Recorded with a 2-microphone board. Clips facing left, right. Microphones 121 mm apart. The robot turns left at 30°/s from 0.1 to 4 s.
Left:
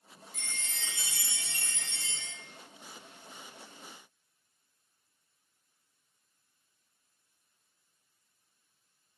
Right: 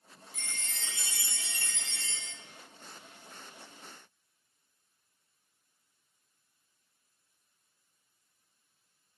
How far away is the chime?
About 0.6 m.